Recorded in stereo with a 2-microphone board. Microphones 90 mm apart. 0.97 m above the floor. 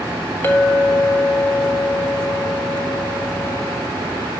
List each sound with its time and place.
0.4 s a clink: 25° left (ahead or behind), 1.1 m